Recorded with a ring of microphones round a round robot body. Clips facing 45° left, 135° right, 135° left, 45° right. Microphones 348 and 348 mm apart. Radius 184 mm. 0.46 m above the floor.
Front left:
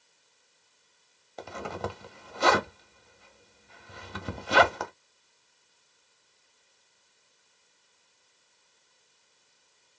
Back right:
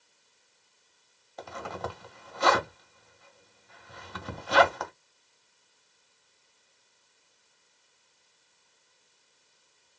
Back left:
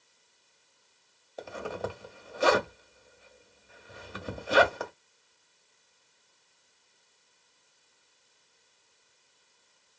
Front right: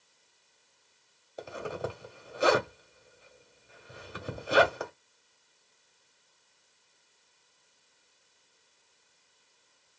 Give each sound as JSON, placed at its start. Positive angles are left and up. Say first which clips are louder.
{"t": 1.4, "sound": "a zipper", "louder": "front left 2 dB, even", "azimuth_deg": 45, "distance_m": 0.8}